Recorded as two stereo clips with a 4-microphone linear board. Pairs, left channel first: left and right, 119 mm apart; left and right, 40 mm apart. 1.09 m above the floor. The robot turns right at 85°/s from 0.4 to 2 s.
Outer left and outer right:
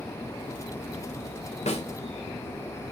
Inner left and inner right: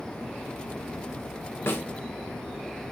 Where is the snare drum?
70° left (ahead or behind), 2.5 m; by 1.8 s 55° left (ahead or behind), 2.5 m.